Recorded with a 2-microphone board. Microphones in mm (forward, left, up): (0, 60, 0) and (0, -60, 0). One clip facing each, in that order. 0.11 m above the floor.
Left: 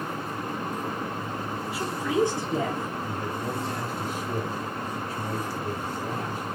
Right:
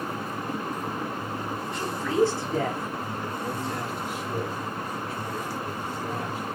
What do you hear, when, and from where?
1.7 s a woman speaking: 5° left (ahead or behind), 1.1 m; by 3.0 s 20° left (ahead or behind), 1.8 m
3.1 s a man speaking: 40° left (ahead or behind), 2 m